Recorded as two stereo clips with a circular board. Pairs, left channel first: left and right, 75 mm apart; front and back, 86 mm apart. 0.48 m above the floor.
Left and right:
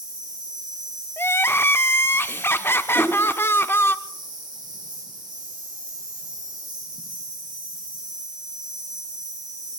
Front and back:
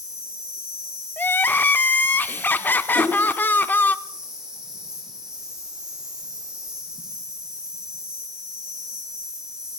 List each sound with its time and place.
0.0 s an insect: 100° right, 4.5 m
1.2 s crying: 55° left, 0.5 m
3.0 s a whoosh: 155° left, 2.5 m